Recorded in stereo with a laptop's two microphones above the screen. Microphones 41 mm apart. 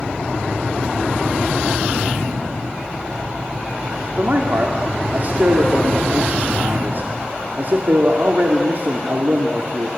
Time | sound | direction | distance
4.2 | a man speaking | 50° right (ahead or behind) | 2 m